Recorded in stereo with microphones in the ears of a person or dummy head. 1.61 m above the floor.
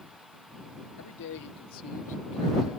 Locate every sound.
1.0 s a man speaking: 70° left (ahead or behind); by 2.8 s 15° left (ahead or behind)